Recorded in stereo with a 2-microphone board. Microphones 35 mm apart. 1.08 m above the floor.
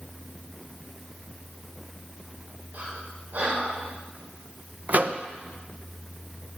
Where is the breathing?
50° right (ahead or behind), 3 m.